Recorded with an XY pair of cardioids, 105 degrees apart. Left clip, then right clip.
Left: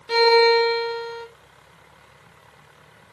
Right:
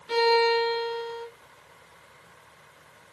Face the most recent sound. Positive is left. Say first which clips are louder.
# left 6 dB
turn(degrees=40)